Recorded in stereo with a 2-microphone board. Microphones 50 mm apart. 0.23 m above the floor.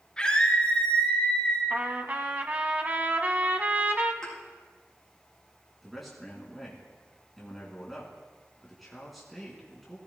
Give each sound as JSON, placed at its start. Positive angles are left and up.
{"t": 0.2, "sound": "a scream", "side_deg": 15, "distance_m": 3.5}
{"t": 1.7, "sound": "a trumpet", "side_deg": -35, "distance_m": 0.9}
{"t": 4.2, "sound": "a thud", "side_deg": 15, "distance_m": 4.0}
{"t": 5.8, "sound": "a man speaking", "side_deg": 0, "distance_m": 2.5}